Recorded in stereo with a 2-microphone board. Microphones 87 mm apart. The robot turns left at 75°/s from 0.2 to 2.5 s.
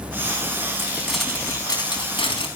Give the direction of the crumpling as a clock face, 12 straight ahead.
5 o'clock.